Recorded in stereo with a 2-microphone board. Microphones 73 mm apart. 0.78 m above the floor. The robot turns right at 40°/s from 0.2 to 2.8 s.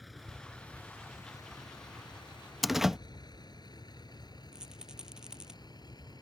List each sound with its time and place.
0.0 s a vehicle: centre (ahead or behind); by 6.2 s 70° left (ahead or behind)
2.6 s a door slam: centre (ahead or behind); by 3.0 s 5° right (ahead or behind)
4.5 s a rattle: 10° right (ahead or behind)